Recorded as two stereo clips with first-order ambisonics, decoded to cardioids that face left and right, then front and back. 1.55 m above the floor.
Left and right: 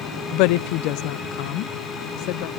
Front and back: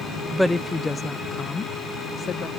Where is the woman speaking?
90° left; by 2.5 s 65° left.